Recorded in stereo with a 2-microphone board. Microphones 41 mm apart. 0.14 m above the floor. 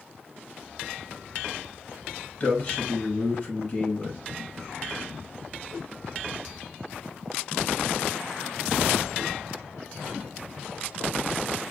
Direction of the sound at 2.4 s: 25° left (ahead or behind).